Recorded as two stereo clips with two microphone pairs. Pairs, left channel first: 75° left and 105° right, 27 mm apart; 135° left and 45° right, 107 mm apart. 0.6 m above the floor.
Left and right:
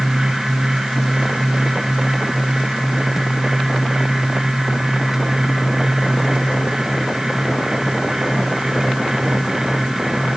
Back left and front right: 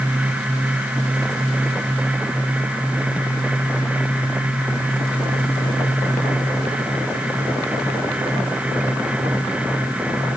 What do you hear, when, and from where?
Only background noise.